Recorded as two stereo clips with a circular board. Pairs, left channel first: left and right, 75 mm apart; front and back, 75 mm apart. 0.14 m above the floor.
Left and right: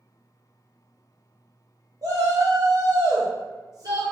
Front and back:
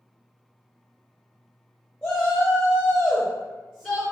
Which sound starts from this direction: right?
A shout, at 2.0 s.